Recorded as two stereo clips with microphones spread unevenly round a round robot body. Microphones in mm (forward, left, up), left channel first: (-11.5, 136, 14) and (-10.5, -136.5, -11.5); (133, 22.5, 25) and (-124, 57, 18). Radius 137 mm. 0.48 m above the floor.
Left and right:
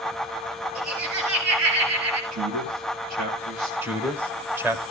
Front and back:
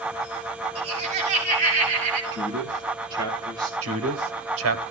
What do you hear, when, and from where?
0.8 s laughter: 120° right, 9.5 m; by 2.2 s 125° right, 9.5 m
2.3 s a man speaking: 110° right, 9.5 m
3.8 s a man speaking: 170° right, 1.6 m